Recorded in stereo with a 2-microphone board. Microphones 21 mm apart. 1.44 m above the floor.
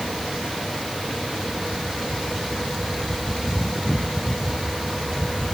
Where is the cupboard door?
I don't hear a cupboard door.